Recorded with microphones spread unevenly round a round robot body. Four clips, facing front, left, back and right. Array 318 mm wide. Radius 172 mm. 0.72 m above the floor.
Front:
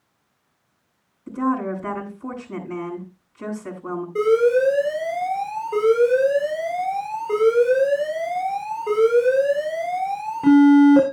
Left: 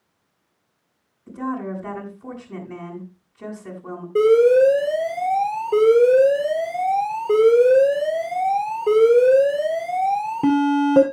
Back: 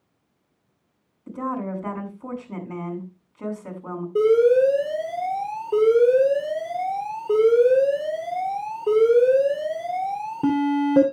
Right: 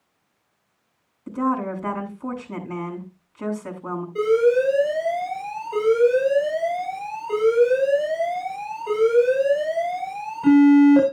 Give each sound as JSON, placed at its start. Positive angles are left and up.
{"t": 1.3, "sound": "a woman speaking", "azimuth_deg": -90, "distance_m": 7.0}
{"t": 4.2, "sound": "an alarm", "azimuth_deg": 135, "distance_m": 4.0}